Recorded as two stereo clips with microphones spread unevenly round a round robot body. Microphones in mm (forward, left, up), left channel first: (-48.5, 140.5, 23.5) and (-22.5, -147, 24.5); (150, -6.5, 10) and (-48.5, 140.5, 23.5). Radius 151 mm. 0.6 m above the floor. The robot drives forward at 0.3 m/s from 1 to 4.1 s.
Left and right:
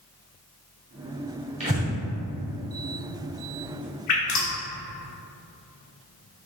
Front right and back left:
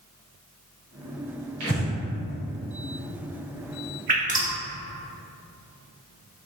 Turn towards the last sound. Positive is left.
turn(degrees=85)